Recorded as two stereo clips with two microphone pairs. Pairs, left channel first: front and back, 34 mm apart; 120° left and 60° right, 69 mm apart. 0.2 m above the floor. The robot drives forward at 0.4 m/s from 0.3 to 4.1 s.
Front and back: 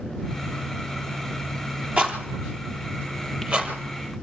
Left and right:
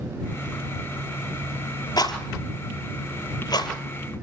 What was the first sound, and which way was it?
A rattle, 125° left.